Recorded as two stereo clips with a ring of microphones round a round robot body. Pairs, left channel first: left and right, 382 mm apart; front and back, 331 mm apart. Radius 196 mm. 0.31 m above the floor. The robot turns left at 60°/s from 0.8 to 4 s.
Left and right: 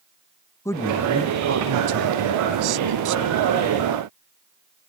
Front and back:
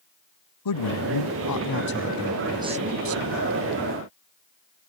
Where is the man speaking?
10° left; by 3.5 s 150° right.